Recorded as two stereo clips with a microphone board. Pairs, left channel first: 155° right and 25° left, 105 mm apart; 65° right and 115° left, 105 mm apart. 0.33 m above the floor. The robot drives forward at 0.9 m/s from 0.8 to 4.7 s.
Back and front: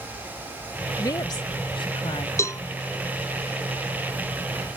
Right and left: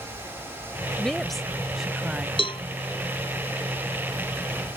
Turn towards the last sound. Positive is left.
turn(degrees=-130)